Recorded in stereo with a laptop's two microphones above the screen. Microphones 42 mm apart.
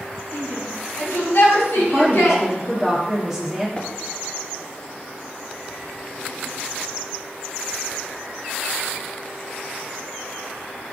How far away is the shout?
About 3.5 m.